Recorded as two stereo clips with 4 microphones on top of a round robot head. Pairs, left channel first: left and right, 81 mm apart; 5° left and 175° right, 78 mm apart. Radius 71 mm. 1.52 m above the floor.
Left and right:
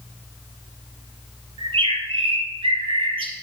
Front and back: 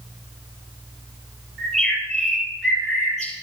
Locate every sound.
1.6 s a bird: 85° right, 4 m